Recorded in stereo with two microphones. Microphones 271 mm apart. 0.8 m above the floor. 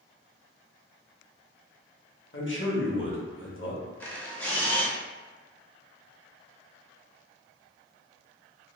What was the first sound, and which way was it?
A man speaking, 50° left (ahead or behind).